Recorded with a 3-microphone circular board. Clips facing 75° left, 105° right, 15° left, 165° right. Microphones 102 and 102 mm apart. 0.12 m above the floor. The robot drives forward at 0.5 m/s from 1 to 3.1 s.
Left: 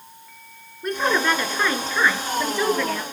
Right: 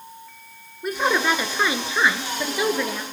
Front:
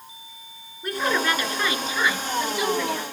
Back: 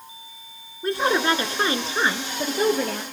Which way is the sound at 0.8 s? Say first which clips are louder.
Even, back 3 dB; straight behind.